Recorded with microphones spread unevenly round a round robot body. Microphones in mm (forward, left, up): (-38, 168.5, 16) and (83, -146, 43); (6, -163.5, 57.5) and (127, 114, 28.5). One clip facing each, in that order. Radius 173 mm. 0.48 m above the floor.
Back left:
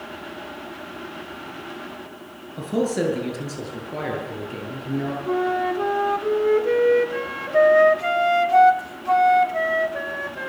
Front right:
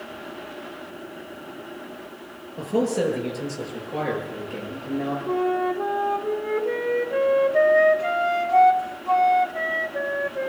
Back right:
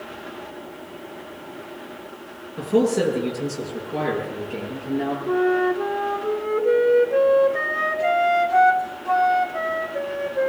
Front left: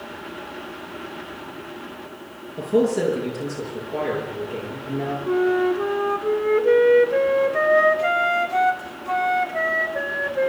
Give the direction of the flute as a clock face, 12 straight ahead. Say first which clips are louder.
Even, front left 1 dB; 8 o'clock.